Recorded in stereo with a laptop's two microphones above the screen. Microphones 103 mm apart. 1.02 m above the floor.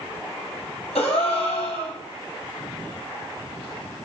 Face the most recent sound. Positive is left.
turn(degrees=70)  # may be behind; listen again after turning